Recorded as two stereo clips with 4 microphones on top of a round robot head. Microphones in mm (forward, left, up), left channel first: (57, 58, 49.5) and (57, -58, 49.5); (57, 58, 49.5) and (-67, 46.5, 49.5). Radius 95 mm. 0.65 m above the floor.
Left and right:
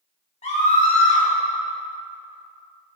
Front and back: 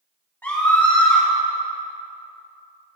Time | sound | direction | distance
0.4 | a scream | 75° left | 1.9 m